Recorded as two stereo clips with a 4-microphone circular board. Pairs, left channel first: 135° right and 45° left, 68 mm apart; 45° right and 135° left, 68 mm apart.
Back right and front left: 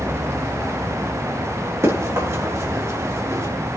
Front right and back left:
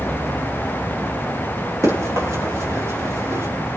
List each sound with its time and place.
1.8 s running footsteps: 90° left, 8.5 m; by 3.5 s 85° left, 9.5 m